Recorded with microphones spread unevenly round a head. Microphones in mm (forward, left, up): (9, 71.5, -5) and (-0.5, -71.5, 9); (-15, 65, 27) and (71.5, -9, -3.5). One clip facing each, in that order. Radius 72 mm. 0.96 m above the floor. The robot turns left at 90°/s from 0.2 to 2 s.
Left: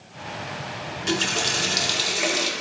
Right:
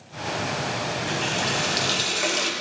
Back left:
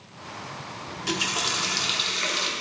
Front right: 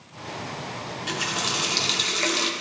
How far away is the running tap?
About 1.4 m.